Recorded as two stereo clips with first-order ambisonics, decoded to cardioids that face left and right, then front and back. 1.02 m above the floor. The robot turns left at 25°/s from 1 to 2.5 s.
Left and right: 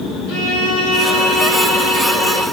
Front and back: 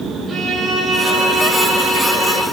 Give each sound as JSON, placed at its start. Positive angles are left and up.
{"t": 0.3, "sound": "a violin", "azimuth_deg": 95, "distance_m": 5.5}